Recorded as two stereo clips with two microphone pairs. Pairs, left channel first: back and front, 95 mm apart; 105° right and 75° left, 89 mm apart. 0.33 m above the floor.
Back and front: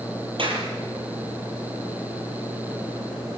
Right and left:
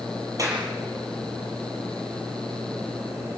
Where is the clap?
25° left, 6.5 m.